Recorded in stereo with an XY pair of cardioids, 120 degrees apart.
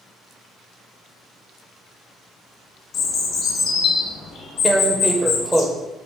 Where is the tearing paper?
15° right, 0.6 m.